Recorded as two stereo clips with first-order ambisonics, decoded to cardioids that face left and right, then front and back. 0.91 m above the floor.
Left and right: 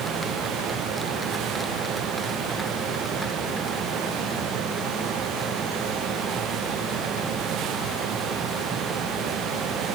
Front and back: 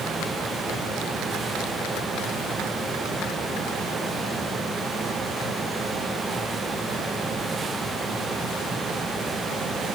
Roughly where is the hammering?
I don't hear hammering.